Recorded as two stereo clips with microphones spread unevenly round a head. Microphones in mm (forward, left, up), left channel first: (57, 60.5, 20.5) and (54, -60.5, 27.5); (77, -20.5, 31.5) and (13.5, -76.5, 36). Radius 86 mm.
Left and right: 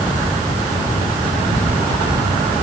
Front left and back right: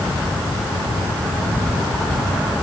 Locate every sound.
Only background noise.